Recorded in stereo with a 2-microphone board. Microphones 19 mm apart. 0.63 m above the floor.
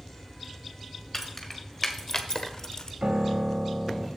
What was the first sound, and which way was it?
Keys jangling, 15° left (ahead or behind).